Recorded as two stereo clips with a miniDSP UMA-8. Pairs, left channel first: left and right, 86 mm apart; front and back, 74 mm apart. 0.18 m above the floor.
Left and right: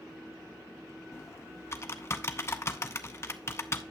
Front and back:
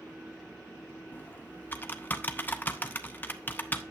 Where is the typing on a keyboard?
50° left, 0.7 m.